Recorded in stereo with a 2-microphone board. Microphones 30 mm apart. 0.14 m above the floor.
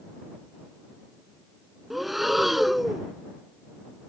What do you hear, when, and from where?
1.9 s breathing: 5° right (ahead or behind)